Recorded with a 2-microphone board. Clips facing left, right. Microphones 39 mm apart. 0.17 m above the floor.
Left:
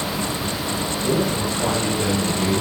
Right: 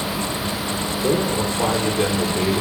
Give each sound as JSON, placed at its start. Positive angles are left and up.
{"t": 1.0, "sound": "a man speaking", "side_deg": -45, "distance_m": 6.0}